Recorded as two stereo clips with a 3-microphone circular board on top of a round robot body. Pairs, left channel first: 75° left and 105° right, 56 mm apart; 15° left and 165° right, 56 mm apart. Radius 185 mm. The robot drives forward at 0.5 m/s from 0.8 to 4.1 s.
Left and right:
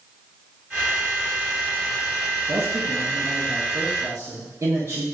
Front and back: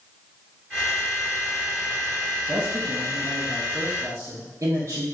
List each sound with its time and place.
2.5 s a man speaking: 115° right, 1.2 m; by 5.0 s 145° right, 1.6 m